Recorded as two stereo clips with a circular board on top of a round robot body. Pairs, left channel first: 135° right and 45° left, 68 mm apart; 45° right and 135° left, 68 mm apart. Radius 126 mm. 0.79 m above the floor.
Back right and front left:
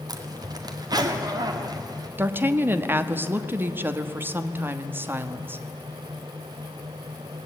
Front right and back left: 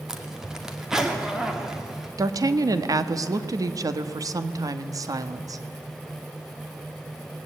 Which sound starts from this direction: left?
A woman speaking, at 2.2 s.